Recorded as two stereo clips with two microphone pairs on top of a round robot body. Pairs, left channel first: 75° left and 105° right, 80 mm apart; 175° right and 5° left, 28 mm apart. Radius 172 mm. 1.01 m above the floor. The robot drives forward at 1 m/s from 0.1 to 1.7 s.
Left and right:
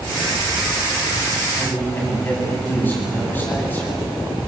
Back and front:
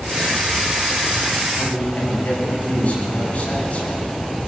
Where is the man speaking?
145° left, 10 m.